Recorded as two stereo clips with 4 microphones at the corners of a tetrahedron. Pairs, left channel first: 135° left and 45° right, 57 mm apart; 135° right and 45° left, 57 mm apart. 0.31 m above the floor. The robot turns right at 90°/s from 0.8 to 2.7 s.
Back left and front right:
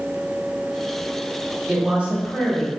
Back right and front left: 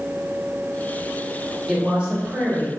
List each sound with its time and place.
1.7 s a woman speaking: 30° right, 1.2 m; by 2.7 s 60° left, 1.2 m